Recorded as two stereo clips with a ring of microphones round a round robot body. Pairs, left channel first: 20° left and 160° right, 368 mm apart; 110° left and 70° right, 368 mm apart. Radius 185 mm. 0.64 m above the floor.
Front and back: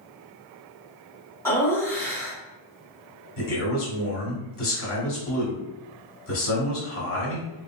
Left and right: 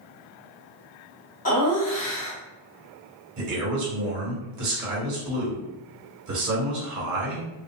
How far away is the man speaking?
About 1.5 m.